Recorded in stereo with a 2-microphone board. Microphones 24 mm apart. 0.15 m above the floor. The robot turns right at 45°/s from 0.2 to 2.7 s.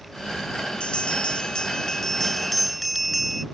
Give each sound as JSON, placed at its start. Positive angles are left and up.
{"t": 0.8, "sound": "a bell", "azimuth_deg": 100}